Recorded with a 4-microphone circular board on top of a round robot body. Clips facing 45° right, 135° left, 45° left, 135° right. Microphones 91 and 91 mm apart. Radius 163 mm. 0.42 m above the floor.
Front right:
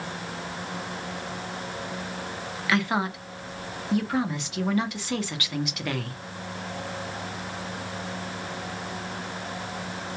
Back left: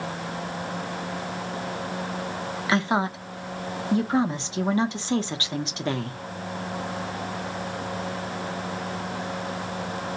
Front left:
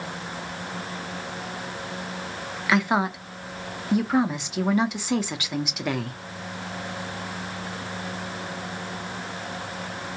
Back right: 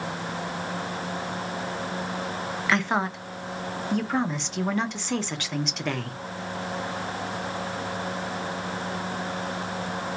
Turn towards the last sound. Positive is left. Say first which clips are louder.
# back left 2 dB, front left 3 dB
turn(degrees=120)